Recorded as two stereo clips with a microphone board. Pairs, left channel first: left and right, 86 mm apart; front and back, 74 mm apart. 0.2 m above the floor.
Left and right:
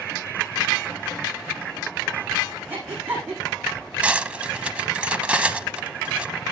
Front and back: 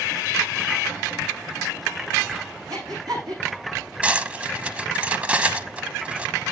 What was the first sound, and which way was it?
Breathing, 155° right.